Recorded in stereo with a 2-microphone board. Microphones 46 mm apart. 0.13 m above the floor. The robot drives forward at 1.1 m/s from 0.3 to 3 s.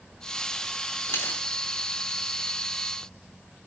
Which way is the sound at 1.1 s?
60° left (ahead or behind).